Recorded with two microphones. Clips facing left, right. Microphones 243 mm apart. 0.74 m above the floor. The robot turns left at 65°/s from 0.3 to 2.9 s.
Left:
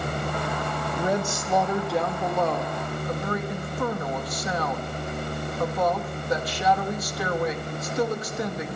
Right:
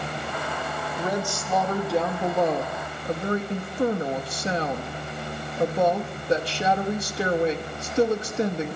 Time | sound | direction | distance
1.0 | a woman speaking | 65° left | 1.0 m